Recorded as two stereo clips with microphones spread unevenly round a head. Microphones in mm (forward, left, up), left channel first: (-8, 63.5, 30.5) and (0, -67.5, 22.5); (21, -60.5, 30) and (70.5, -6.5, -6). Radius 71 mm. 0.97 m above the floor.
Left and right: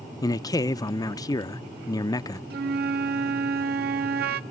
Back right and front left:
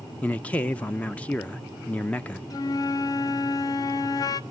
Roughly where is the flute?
Right.